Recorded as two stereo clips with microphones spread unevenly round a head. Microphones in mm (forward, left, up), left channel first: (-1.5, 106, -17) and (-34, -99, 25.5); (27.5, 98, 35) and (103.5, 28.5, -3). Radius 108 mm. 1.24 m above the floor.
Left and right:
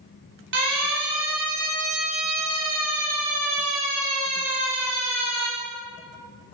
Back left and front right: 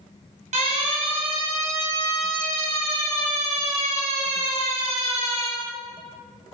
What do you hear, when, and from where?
0.5 s a siren: 55° right, 10 m; by 5.5 s 35° right, 12 m